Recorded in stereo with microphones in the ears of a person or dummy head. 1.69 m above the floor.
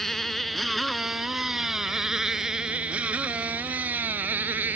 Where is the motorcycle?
5° left (ahead or behind); by 4.8 s 10° right (ahead or behind).